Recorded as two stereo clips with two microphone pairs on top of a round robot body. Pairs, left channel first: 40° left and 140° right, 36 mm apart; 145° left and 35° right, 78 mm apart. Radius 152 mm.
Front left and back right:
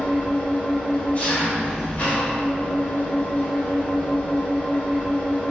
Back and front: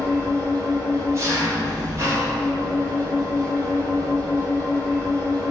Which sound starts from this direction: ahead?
An engine running, at 0.0 s.